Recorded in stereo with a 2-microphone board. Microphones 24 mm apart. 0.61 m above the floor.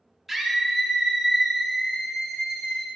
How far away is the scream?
About 1.5 m.